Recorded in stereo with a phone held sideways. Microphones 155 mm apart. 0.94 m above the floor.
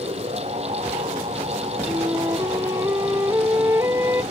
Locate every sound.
0.0 s a fan: 40° right (ahead or behind)
1.9 s a flute: 15° right (ahead or behind)